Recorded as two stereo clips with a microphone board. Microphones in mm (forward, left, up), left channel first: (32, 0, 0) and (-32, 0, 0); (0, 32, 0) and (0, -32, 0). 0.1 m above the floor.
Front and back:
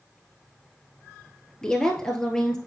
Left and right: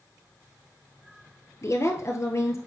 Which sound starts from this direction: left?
A woman speaking, at 1.6 s.